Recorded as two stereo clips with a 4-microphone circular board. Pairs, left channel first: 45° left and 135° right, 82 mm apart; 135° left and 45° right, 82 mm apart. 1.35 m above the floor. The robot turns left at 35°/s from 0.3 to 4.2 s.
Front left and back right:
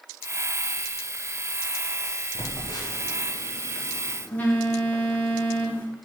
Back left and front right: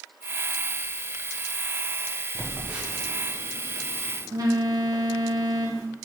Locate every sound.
2.4 s a phone buzzing: 45° left, 0.8 m; by 5.9 s 20° right, 0.8 m